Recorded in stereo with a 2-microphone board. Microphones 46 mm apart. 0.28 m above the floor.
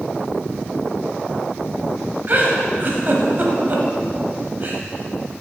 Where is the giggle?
45° right (ahead or behind), 1.1 m.